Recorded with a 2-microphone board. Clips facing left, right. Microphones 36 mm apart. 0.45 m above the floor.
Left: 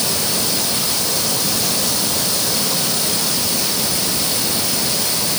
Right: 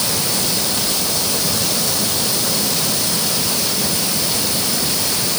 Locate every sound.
Only background noise.